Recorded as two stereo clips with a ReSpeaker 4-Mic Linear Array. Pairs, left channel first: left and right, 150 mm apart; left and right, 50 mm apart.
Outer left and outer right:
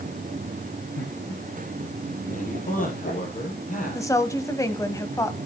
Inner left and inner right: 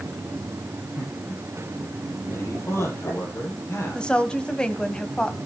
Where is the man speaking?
55° left (ahead or behind), 6.5 m.